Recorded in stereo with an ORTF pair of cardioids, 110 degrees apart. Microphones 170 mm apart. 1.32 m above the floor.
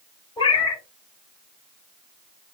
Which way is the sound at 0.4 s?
25° left.